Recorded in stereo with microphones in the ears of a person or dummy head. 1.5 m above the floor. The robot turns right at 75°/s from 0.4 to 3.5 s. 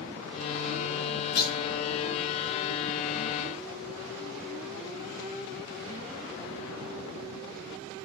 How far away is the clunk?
About 0.9 m.